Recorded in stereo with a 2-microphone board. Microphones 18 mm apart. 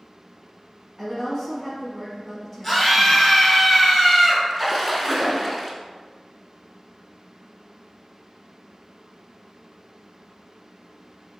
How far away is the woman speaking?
About 1.4 m.